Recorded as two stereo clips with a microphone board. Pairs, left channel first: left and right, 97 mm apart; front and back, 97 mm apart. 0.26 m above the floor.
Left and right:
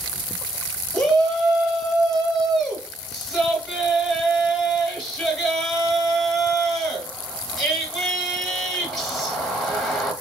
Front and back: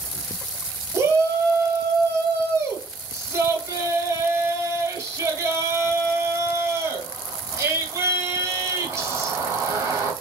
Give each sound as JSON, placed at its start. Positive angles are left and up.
{"t": 0.9, "sound": "a shout", "azimuth_deg": 175, "distance_m": 1.0}